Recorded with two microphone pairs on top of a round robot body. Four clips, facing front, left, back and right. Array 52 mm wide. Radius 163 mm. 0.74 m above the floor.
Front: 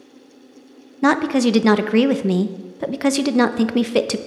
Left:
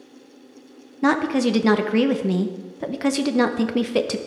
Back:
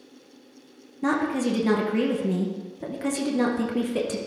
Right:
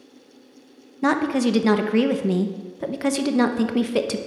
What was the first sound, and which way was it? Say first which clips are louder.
A woman speaking: left 1 dB, front 8 dB; 5° left.